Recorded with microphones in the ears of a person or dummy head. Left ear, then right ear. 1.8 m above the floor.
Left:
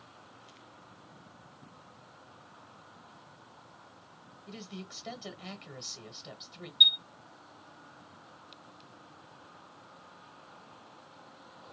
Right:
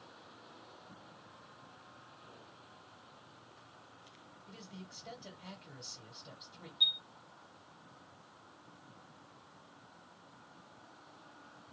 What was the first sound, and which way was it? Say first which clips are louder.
A man speaking: left 8 dB; 40° left (ahead or behind).